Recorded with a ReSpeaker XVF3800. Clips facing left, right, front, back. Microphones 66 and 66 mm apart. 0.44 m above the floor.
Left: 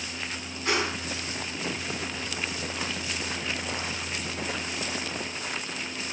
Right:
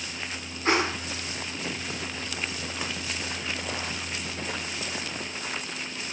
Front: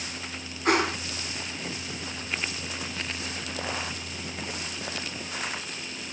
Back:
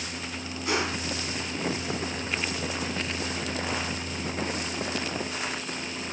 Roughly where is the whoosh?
Ahead right.